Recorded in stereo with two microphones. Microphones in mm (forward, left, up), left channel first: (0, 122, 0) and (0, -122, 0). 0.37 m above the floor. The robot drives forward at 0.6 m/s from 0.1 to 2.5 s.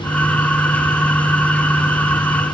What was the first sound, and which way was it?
Only background noise.